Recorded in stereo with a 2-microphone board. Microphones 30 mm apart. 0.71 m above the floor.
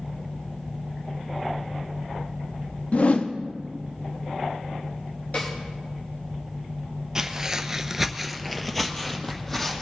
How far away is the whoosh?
About 0.6 m.